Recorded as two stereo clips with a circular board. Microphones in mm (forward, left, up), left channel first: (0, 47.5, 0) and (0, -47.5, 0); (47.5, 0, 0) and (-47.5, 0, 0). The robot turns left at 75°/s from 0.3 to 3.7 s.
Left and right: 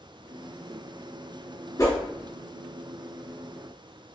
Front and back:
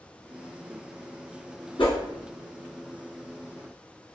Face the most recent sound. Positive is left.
turn(degrees=-110)